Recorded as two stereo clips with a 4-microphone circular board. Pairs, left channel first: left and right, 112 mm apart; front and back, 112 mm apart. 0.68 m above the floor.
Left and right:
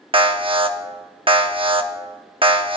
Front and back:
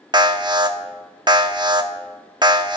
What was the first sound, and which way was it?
An alarm, 130° right.